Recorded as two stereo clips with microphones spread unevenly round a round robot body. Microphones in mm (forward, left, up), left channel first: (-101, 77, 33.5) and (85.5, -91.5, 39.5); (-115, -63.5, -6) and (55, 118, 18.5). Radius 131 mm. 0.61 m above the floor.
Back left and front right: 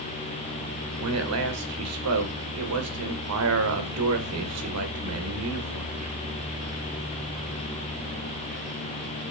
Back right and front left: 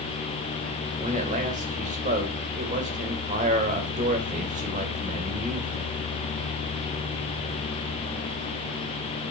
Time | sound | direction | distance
1.0 | a man speaking | 20° right | 2.5 m